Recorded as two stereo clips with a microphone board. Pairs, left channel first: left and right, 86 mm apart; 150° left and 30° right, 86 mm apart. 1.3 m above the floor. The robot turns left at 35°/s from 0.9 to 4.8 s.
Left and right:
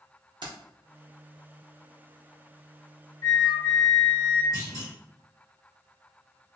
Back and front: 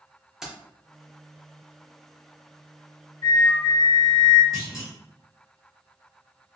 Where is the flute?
125° left, 1.3 m; by 4.4 s 80° left, 1.3 m.